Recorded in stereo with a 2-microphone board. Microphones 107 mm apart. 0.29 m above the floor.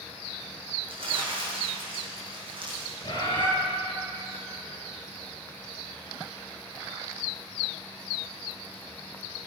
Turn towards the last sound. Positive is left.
turn(degrees=45)  # may be behind; listen again after turning